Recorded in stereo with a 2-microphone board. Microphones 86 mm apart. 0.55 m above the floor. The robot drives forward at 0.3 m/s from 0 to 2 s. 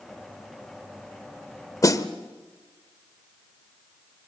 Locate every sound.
1.8 s a snare drum: 40° left (ahead or behind), 1.2 m